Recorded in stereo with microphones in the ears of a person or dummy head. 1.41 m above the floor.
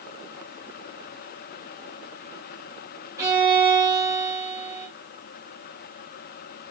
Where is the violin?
15° right (ahead or behind), 1.8 m.